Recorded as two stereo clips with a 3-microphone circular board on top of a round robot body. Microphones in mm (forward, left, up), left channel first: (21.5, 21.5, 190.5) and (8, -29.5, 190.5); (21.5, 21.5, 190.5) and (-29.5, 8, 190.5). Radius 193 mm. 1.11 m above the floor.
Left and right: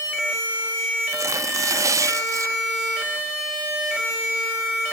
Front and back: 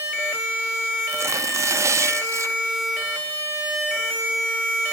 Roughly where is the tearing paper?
Behind right.